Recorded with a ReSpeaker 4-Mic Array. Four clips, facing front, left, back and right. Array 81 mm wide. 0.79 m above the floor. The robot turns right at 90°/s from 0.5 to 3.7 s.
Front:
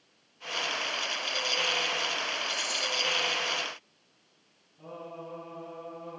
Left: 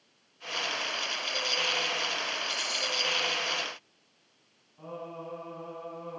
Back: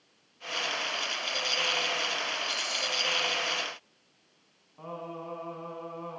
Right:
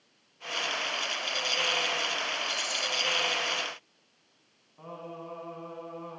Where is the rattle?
10° left, 2 m; by 2.9 s 45° left, 2 m.